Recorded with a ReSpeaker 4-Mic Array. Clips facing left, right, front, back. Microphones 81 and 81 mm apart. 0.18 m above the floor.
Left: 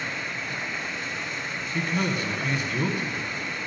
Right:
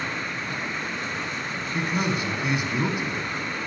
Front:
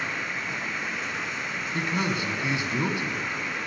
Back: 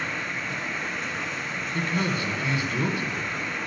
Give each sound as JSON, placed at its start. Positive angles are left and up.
{"t": 0.0, "sound": "running water", "azimuth_deg": -85, "distance_m": 1.1}
{"t": 1.7, "sound": "a man speaking", "azimuth_deg": -35, "distance_m": 1.2}